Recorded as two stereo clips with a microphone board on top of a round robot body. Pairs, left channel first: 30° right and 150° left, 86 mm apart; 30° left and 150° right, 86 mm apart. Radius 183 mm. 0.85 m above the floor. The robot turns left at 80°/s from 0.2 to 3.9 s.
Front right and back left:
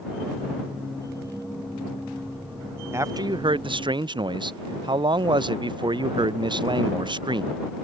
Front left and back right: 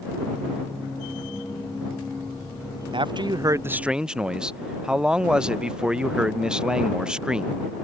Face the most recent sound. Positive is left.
turn(degrees=130)